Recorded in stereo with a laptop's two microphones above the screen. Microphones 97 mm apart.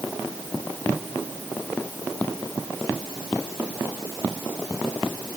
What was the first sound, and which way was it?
Only background noise.